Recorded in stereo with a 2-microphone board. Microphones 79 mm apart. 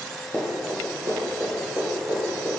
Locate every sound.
0.3 s running footsteps: 30° right (ahead or behind), 1.1 m; by 2.5 s 35° right (ahead or behind), 2.5 m